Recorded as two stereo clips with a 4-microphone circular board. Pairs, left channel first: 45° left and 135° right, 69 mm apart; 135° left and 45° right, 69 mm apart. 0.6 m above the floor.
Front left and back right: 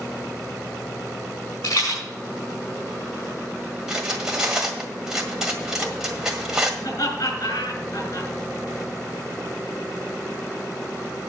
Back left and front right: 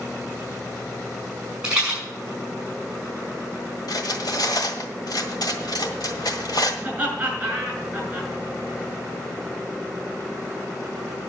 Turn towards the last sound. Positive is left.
turn(degrees=30)